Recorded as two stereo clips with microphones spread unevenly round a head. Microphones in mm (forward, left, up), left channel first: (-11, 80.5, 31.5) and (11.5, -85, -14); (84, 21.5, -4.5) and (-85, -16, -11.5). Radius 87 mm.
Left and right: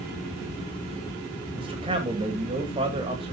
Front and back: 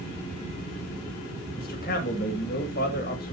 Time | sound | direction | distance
1.6 | a man speaking | 25° right | 2 m